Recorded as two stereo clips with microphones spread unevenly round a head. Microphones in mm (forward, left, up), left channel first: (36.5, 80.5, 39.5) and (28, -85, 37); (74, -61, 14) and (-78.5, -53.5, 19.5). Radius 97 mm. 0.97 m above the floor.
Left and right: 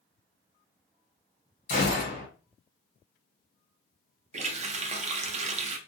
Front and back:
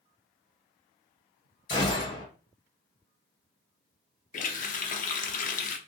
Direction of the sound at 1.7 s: 50° left.